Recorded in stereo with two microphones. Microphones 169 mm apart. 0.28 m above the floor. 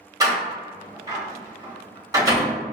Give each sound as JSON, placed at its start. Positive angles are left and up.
{"t": 0.2, "sound": "a door slam", "side_deg": -20, "distance_m": 0.7}